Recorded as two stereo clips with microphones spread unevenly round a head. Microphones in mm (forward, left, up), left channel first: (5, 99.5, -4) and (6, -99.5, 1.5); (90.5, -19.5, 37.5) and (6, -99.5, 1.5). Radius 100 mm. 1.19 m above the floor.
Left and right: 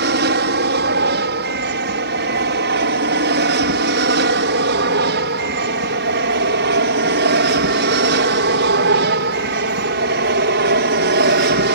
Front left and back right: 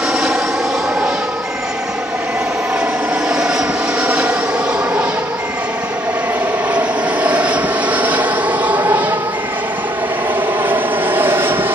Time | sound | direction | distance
0.0 | an aircraft | 60° right | ?